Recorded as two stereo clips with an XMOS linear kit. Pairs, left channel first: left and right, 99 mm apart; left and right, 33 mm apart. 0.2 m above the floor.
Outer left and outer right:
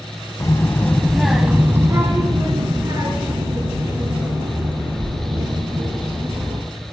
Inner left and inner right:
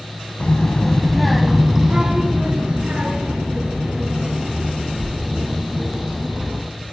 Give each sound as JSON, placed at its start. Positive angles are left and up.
{"t": 0.4, "sound": "a child speaking", "side_deg": 35, "distance_m": 0.7}